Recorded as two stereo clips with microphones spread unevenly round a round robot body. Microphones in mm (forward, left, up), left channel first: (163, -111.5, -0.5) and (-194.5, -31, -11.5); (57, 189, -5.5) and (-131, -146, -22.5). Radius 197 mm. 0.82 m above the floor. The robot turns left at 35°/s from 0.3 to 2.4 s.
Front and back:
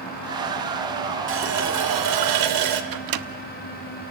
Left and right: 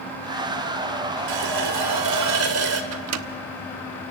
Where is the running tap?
135° right, 2 m; by 2.8 s 175° right, 2 m.